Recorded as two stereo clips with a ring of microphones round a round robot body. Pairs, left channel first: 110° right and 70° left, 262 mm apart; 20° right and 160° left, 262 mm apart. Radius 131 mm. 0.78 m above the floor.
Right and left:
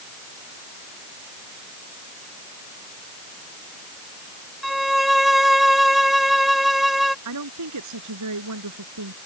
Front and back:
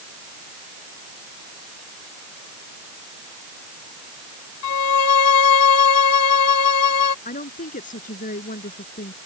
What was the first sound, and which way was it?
A violin, 20° right.